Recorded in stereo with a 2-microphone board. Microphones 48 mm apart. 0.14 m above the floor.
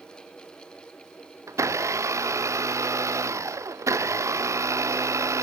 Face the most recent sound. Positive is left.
turn(degrees=-80)